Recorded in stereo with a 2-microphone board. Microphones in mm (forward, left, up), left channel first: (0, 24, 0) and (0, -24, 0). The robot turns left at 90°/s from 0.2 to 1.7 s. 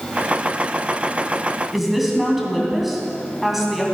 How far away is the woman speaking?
About 2.5 m.